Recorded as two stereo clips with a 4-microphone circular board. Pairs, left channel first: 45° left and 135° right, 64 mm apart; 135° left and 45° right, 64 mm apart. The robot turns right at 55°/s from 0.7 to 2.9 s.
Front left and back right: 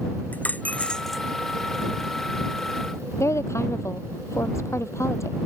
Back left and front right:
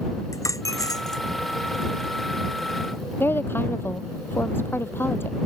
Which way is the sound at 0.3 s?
110° left.